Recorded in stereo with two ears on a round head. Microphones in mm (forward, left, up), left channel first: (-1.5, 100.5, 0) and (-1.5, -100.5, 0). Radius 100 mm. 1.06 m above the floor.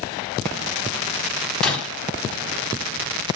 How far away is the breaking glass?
About 3.5 m.